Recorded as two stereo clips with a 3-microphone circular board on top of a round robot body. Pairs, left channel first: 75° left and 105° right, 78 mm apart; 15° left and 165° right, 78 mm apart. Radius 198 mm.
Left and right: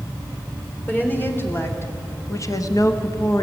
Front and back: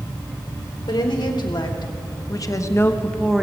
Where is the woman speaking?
10° left, 3 m; by 3.4 s 115° left, 1.3 m.